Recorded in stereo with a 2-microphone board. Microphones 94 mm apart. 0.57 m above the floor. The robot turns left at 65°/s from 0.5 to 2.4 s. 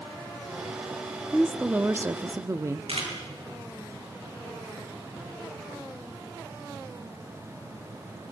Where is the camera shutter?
85° right, 6 m.